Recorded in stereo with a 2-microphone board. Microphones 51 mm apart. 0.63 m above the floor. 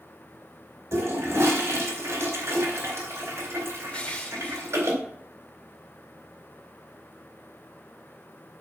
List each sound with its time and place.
0.9 s a toilet flushing: 65° right (ahead or behind), 3.5 m
3.9 s crushing: 25° left (ahead or behind), 1.2 m